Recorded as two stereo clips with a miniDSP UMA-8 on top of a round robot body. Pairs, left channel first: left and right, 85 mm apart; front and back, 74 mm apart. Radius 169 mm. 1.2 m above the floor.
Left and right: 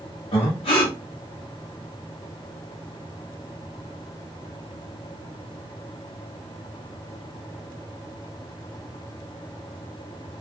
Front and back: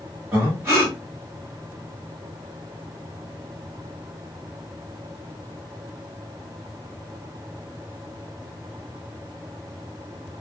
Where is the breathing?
110° left, 1.1 m.